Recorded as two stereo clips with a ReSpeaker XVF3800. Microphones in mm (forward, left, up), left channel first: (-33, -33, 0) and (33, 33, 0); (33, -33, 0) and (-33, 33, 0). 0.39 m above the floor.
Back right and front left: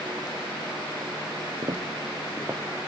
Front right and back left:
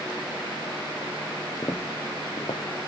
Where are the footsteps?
15° left, 1.2 m; by 2.9 s 45° right, 1.6 m.